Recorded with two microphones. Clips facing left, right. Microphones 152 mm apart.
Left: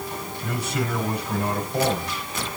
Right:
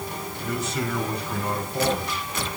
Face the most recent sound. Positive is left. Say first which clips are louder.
# even
turn(degrees=65)  # may be behind; listen again after turning